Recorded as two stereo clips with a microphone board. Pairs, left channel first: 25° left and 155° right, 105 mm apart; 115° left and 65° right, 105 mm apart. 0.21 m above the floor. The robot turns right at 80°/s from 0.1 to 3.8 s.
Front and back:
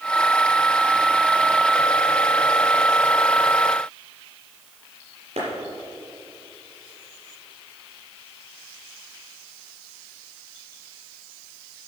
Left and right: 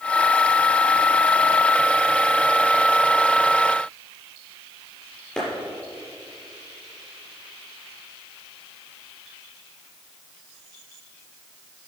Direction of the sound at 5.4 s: 165° right.